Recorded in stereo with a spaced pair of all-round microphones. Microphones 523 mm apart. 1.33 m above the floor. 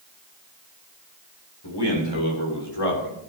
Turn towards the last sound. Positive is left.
turn(degrees=85)